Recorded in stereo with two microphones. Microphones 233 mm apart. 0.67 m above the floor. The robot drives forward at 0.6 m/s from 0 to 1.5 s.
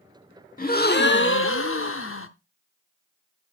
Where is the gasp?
40° left (ahead or behind), 1.1 m; by 2.3 s 70° left (ahead or behind), 0.7 m.